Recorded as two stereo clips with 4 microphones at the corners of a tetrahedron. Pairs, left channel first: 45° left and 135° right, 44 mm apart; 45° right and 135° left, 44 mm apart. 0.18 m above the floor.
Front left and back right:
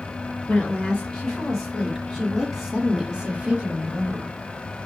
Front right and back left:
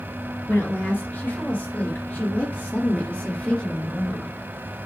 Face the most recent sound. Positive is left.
turn(degrees=-115)